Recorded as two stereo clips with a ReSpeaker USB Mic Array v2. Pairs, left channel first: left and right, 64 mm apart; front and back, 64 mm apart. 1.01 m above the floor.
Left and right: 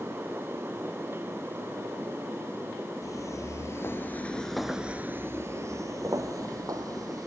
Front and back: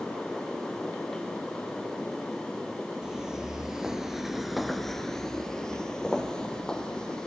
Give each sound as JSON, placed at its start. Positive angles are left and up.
{"t": 3.0, "sound": "footsteps", "azimuth_deg": 100, "distance_m": 1.9}